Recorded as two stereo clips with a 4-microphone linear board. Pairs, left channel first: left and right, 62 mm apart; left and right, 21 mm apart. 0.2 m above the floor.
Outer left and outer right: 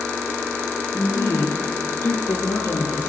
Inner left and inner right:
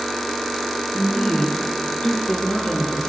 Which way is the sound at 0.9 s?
75° left (ahead or behind).